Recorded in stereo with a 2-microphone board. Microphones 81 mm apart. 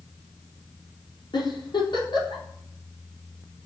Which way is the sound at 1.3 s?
65° left (ahead or behind).